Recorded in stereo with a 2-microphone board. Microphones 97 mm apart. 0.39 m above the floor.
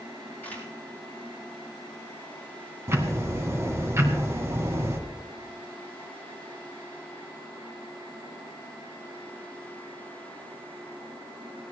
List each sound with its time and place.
0.4 s a camera shutter: 15° left (ahead or behind), 5.5 m
2.9 s ticking: 30° right (ahead or behind), 1.6 m